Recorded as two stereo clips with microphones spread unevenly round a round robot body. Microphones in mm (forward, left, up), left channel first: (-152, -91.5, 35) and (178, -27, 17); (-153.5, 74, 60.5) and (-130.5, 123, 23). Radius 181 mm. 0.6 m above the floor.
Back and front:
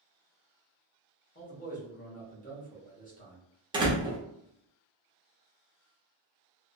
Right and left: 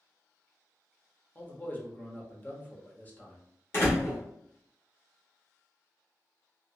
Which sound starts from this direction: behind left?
A man speaking, at 1.4 s.